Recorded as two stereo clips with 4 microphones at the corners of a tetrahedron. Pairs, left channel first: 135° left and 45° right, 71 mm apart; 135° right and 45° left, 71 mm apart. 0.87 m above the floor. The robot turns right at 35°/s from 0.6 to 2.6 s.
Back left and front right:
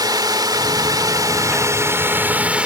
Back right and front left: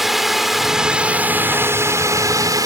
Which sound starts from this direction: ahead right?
A drone, at 0.0 s.